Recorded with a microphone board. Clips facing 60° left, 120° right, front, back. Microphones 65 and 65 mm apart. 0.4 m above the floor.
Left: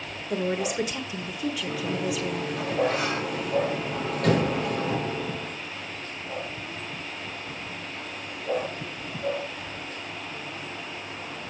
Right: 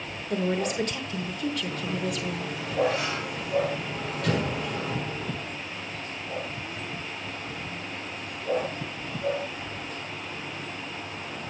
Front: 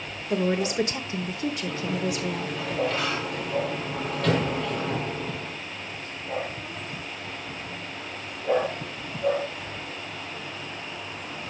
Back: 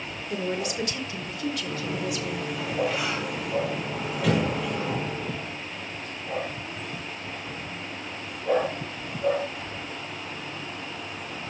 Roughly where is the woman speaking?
Ahead.